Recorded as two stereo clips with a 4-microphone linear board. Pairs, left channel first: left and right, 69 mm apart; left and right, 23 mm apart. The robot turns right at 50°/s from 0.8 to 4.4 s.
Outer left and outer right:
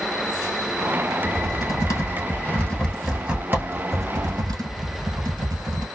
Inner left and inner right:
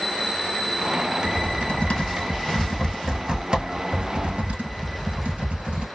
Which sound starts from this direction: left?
Typing on a keyboard, at 1.2 s.